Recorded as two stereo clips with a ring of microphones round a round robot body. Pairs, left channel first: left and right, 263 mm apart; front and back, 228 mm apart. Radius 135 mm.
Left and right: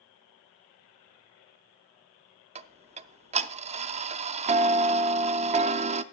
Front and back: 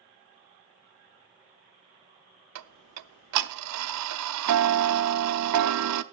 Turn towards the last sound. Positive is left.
turn(degrees=-155)